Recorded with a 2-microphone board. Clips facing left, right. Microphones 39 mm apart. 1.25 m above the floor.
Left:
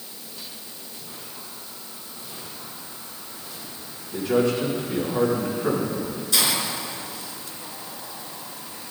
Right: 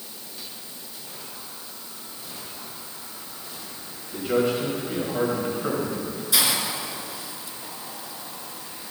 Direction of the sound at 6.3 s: 15° right (ahead or behind).